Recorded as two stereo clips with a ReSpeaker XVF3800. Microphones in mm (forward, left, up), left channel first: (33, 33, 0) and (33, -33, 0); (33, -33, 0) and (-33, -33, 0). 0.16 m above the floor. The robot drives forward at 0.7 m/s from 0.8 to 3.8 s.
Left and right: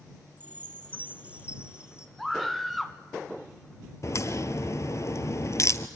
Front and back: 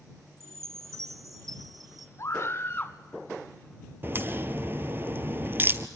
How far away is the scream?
About 1.6 m.